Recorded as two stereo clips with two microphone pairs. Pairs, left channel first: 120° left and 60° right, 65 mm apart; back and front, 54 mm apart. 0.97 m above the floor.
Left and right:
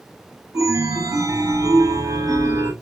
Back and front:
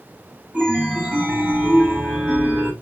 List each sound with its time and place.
0.5 s a chime: 65° right, 6.5 m